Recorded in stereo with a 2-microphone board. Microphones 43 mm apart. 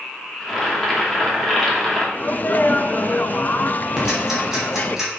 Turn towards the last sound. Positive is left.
turn(degrees=-10)  # may be behind; listen again after turning